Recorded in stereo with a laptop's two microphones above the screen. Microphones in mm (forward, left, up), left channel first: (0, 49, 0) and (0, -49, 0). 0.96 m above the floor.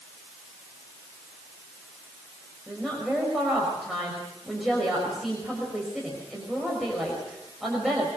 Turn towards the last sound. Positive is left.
turn(degrees=0)  # may be behind; listen again after turning